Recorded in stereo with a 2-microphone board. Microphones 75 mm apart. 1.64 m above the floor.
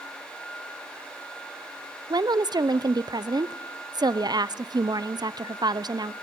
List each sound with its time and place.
2.1 s a woman speaking: 65° right (ahead or behind), 0.6 m